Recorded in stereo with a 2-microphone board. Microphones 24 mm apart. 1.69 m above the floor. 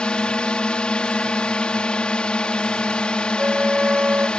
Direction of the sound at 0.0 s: 50° left (ahead or behind).